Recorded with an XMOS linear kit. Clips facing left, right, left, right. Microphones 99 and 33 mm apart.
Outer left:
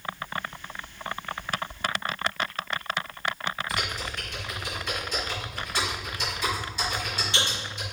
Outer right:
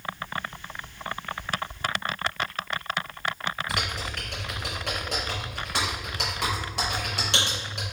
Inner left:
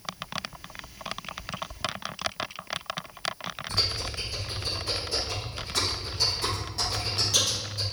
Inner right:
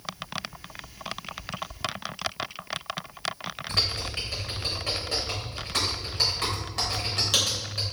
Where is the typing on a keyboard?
85° right, 3.5 m.